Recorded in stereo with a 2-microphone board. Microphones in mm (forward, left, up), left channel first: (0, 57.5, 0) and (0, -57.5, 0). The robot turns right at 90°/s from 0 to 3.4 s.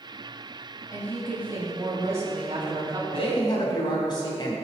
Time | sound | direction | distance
0.9 | a woman speaking | 145° left | 2.5 m
3.1 | a man speaking | 60° left (ahead or behind) | 3 m